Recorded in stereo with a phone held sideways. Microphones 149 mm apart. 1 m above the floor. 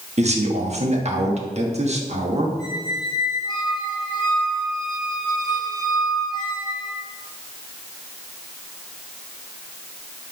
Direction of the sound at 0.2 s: 50° right (ahead or behind).